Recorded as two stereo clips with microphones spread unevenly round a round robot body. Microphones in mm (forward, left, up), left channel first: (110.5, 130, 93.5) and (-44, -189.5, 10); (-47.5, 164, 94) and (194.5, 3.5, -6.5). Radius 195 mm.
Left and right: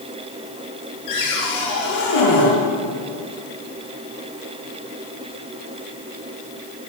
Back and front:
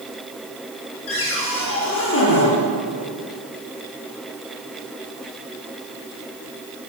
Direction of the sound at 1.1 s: 105° left.